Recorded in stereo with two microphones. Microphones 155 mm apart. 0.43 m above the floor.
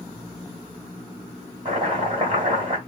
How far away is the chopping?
About 2.0 m.